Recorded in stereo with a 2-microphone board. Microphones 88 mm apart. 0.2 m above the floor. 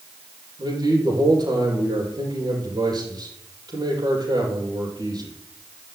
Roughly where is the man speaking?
Right.